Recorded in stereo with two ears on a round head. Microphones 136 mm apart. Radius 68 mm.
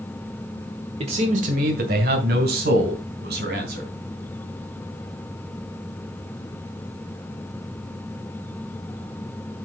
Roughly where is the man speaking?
Right.